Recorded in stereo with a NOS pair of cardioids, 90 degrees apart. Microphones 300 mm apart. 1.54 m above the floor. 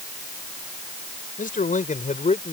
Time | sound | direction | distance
1.4 | a man speaking | 25° left | ?